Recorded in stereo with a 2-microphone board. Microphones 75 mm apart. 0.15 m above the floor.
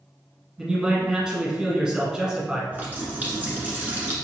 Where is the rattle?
No rattle in this recording.